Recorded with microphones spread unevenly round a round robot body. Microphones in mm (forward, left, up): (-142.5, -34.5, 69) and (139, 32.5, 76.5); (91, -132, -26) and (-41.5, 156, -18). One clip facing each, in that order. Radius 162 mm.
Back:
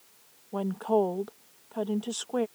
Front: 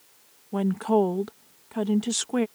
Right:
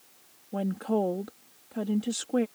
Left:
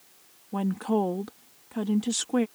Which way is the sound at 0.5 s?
45° left.